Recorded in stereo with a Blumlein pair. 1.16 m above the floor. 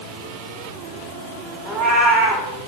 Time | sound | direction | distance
1.6 | a cat meowing | 10° right | 2.5 m